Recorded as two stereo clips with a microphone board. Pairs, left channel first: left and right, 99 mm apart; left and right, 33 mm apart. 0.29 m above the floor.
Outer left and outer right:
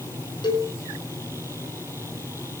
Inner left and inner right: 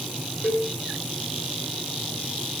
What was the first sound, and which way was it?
A cowbell, 50° left (ahead or behind).